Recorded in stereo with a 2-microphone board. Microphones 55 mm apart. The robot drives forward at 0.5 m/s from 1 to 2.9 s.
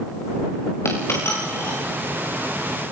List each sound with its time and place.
0.8 s a dropped coin: 55° left (ahead or behind), 8 m